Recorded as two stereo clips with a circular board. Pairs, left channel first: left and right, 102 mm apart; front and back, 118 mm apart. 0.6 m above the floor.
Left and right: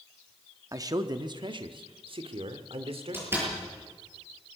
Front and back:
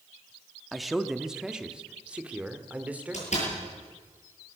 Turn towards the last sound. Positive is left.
turn(degrees=-20)